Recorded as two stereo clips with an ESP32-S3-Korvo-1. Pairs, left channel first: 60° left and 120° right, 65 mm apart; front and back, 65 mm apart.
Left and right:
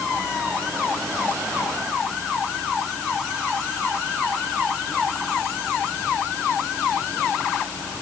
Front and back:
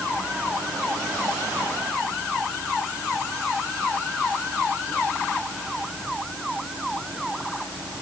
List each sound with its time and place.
Only background noise.